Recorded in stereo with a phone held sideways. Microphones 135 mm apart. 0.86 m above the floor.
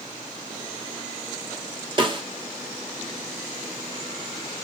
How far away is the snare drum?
About 0.5 m.